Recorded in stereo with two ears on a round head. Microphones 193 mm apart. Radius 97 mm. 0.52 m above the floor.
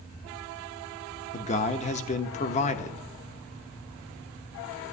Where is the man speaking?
35° left (ahead or behind), 0.8 m.